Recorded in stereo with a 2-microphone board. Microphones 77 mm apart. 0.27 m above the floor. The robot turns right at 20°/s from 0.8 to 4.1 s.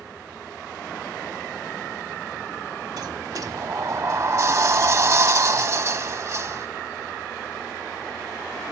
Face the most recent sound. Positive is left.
turn(degrees=-40)  # may be behind; listen again after turning